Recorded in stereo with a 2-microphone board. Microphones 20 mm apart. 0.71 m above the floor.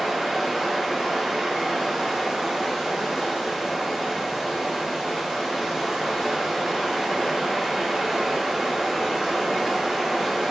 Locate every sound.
0.0 s running water: 30° right (ahead or behind), 3.5 m